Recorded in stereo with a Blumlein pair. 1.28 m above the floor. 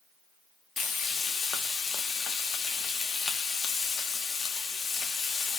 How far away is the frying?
About 0.9 m.